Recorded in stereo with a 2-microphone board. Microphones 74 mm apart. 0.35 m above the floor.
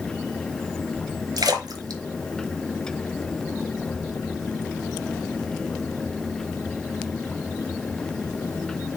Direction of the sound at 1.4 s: 65° right (ahead or behind).